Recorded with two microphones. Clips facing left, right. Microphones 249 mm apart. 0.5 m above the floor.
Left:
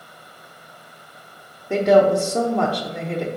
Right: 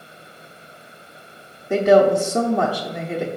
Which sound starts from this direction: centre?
A woman speaking, at 1.7 s.